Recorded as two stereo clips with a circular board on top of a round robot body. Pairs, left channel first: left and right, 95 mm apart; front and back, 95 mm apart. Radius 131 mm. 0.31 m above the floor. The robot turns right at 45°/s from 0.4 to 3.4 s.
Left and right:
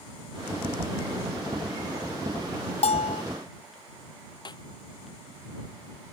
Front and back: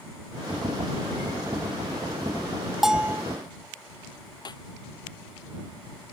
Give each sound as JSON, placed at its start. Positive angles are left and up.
{"t": 2.8, "sound": "a bell", "azimuth_deg": 95}
{"t": 4.5, "sound": "a snare drum", "azimuth_deg": 45}